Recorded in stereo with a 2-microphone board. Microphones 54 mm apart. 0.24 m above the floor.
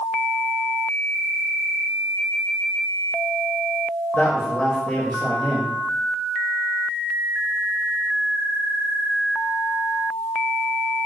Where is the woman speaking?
25° left (ahead or behind), 1.0 m.